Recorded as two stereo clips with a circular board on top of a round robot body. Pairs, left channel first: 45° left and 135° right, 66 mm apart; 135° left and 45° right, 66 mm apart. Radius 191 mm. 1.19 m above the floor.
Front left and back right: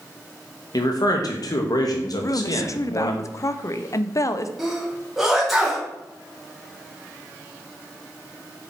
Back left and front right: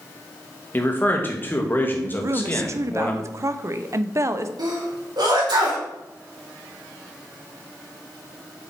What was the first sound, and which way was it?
A man speaking, 75° left.